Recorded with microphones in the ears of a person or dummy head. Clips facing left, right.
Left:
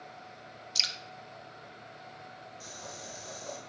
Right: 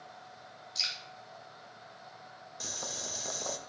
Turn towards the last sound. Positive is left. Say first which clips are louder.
# right 5 dB
turn(degrees=-85)